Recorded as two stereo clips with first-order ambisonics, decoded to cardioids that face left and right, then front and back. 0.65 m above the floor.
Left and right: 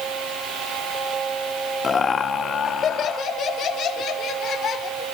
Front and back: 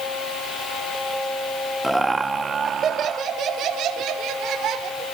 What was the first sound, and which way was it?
Laughter, 95° left.